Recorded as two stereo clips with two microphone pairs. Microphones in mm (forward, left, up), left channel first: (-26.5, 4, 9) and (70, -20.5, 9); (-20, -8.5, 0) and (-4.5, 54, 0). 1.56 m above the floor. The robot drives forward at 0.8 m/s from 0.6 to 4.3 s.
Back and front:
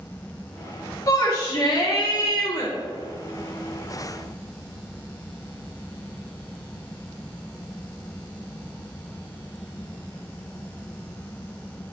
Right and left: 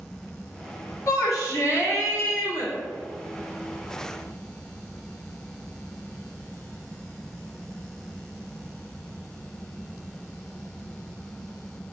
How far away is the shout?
About 2.5 m.